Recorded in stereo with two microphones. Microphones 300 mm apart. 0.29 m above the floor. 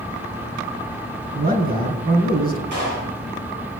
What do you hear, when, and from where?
1.3 s a man speaking: 30° right (ahead or behind), 4 m
2.7 s a clap: 80° right, 7.5 m